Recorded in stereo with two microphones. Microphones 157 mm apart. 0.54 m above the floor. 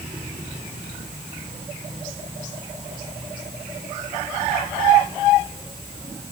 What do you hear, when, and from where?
Only background noise.